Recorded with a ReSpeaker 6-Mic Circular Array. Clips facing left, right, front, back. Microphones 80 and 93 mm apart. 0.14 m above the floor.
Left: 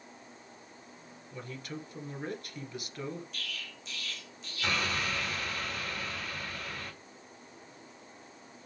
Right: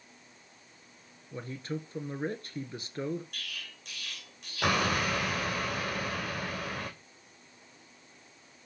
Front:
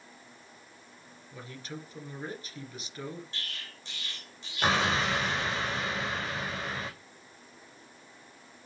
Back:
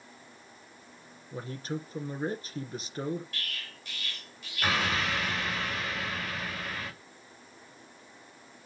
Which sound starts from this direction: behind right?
A man speaking, at 1.3 s.